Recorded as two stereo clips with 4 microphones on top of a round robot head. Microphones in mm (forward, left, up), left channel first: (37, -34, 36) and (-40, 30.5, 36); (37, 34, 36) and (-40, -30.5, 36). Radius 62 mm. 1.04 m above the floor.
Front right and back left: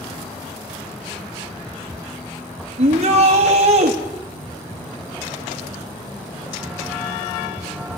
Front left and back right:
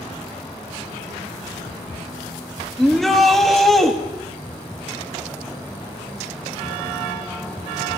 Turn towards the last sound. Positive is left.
turn(degrees=130)